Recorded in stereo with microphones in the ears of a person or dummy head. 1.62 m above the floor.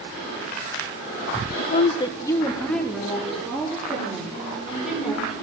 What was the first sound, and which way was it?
A woman speaking, 45° left (ahead or behind).